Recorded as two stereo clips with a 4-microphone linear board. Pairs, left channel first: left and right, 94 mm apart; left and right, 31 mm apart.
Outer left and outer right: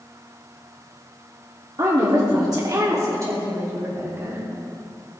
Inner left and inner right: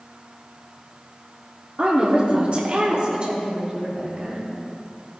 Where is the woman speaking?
45° right (ahead or behind), 1.7 m; by 4.4 s 30° right (ahead or behind), 4 m.